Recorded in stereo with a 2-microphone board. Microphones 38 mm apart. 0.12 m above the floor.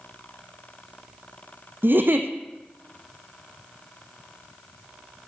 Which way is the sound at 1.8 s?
65° right (ahead or behind).